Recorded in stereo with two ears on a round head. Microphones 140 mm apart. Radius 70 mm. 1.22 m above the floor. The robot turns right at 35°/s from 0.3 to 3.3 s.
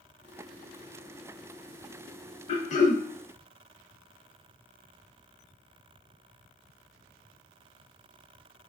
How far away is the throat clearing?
About 0.7 m.